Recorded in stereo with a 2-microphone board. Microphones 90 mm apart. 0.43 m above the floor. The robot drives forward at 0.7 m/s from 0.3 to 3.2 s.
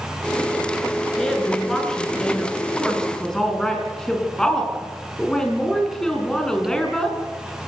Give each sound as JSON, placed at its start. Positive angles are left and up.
{"t": 1.2, "sound": "a woman speaking", "side_deg": 5, "distance_m": 6.5}